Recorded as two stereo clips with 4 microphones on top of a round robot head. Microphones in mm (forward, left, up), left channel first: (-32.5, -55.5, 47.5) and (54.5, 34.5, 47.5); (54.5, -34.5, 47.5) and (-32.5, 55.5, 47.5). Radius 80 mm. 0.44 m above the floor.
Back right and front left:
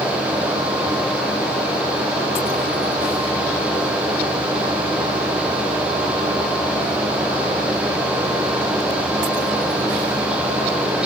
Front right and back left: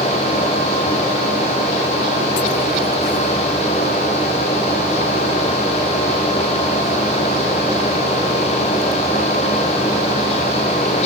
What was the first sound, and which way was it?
Only background noise.